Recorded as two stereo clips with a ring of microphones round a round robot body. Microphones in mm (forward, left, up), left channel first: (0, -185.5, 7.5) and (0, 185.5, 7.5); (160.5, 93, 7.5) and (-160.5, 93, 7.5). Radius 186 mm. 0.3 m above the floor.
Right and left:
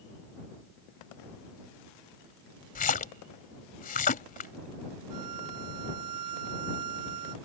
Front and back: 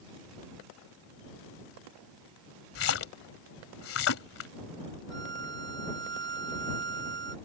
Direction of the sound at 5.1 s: 125° left.